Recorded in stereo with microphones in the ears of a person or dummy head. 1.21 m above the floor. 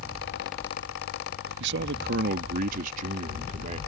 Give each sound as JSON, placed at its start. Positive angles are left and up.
{"t": 1.6, "sound": "a man speaking", "side_deg": -65}